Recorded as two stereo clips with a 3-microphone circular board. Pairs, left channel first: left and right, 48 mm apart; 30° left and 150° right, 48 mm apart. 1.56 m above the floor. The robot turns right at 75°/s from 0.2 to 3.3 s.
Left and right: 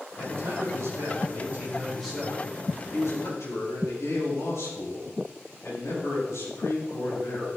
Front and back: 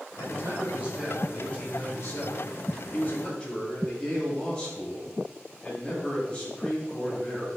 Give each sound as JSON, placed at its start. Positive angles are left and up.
{"t": 0.2, "sound": "a man speaking", "azimuth_deg": -135, "distance_m": 8.0}